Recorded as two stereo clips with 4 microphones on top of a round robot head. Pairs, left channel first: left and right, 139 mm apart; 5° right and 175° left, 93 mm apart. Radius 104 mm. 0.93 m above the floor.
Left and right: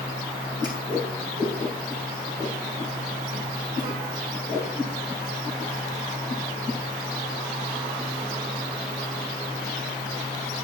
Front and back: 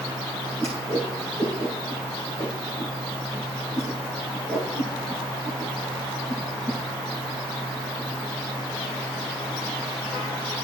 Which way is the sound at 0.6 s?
150° right.